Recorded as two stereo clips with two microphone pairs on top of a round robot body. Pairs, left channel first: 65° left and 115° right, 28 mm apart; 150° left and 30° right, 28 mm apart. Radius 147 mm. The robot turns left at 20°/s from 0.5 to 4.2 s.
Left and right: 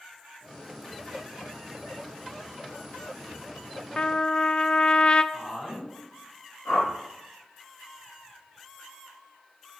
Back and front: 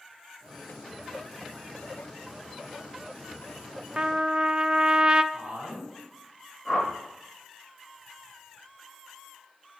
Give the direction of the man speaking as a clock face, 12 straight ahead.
12 o'clock.